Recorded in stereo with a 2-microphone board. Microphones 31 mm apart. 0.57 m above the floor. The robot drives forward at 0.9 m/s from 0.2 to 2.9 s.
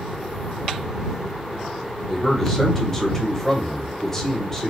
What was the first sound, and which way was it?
A man speaking, 15° left (ahead or behind).